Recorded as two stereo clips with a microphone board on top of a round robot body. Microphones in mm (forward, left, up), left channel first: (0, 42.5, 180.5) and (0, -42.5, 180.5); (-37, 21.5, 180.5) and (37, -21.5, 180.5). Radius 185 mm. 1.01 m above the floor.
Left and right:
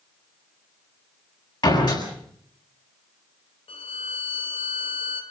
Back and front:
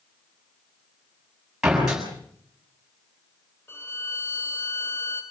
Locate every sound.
1.6 s a door slam: 55° left, 8 m
3.7 s a violin: 85° left, 1.8 m